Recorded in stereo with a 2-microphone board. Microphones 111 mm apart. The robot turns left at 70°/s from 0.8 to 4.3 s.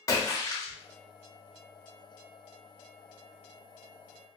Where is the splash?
30° left (ahead or behind), 0.8 m.